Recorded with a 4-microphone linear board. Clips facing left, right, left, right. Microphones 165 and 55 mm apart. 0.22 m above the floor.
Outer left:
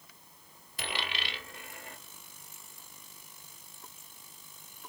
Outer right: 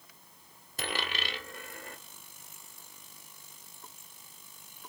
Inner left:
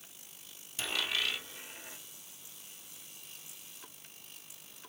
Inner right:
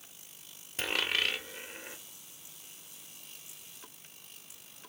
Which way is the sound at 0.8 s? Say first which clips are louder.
Outer right 2 dB, inner right 3 dB; 45° right (ahead or behind).